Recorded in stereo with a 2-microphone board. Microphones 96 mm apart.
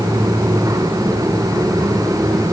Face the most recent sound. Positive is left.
No sound to turn to.